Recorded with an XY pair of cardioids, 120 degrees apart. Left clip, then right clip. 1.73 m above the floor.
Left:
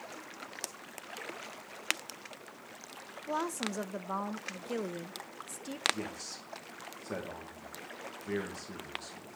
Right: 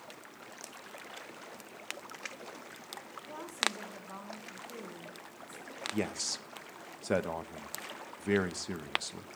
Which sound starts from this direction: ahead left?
A woman speaking, at 3.3 s.